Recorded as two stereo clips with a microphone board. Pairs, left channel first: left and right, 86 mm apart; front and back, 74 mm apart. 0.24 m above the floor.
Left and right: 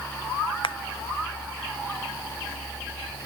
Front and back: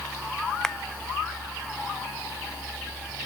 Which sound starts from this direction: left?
A finger snap, at 0.6 s.